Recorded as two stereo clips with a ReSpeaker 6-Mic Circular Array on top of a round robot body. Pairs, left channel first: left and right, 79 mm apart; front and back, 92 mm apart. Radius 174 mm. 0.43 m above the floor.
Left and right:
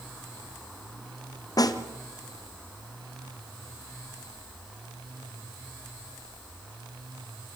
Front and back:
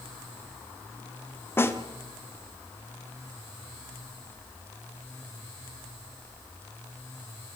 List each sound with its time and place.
1.6 s a snare drum: 60° left, 1.9 m